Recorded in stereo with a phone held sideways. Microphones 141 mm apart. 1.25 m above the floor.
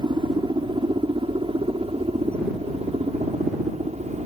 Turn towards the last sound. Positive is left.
turn(degrees=-45)  # may be behind; listen again after turning